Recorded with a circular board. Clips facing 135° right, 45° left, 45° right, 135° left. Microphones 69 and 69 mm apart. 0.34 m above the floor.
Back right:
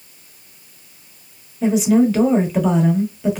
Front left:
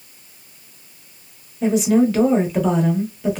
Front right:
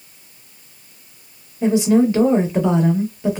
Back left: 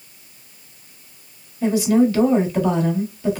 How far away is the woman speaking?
About 0.9 m.